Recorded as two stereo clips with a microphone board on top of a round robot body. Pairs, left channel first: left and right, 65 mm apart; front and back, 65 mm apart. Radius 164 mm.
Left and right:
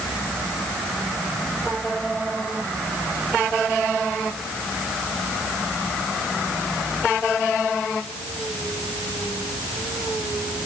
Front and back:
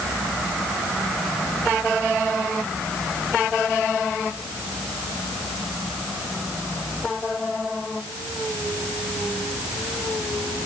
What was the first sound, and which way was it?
Only background noise.